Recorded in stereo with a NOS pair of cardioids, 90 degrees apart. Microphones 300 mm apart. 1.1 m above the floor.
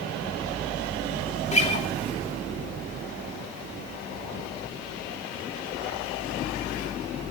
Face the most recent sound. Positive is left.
turn(degrees=20)